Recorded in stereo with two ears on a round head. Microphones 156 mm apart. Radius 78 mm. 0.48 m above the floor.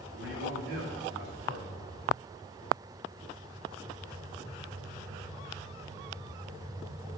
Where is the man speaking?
65° right (ahead or behind), 2.5 m.